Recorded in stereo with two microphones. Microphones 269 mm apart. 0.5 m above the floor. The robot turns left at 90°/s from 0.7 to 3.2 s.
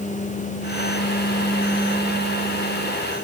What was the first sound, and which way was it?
Only background noise.